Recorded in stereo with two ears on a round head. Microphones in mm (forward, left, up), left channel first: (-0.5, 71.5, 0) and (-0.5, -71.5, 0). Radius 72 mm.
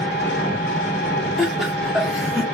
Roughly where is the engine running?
Left.